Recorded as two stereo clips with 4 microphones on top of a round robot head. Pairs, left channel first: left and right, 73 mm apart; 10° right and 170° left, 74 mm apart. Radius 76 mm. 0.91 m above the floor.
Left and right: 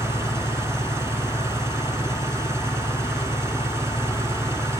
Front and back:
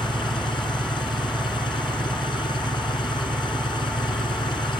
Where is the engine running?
30° right.